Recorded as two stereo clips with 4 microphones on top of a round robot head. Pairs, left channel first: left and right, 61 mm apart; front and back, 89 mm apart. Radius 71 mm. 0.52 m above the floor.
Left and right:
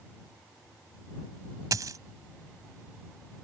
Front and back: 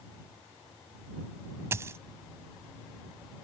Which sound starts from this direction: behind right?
A dropped coin, at 1.7 s.